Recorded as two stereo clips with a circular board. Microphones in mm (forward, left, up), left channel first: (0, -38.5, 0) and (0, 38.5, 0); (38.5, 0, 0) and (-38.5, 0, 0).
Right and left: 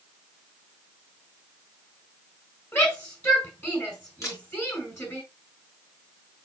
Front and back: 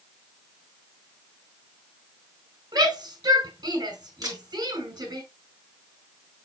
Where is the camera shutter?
140° right, 5 m.